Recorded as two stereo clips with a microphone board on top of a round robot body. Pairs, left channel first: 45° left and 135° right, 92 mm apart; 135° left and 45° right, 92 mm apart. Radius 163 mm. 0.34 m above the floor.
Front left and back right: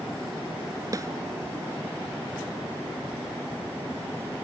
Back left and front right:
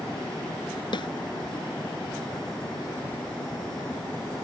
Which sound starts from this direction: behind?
A snare drum, at 0.9 s.